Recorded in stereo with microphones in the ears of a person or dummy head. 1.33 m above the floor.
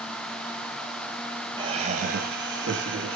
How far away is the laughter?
About 0.9 m.